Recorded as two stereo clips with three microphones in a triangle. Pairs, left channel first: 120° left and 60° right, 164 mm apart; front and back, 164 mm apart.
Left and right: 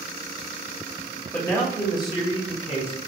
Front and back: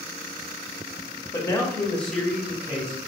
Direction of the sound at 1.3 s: 50° left.